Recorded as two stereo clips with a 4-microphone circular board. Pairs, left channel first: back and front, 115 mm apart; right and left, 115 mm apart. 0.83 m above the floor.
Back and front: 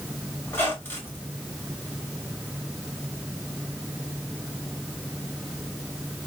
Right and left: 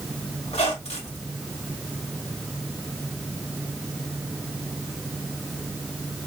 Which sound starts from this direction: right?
A squeak, at 0.5 s.